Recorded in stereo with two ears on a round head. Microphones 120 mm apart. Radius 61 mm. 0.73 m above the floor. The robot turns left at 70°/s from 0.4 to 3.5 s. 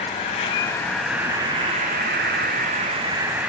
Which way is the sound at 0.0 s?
45° left.